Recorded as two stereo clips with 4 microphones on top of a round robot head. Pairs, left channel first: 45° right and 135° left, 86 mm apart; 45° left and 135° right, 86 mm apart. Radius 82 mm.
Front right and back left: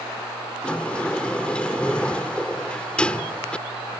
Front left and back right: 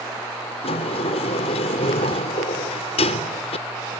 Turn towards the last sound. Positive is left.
turn(degrees=35)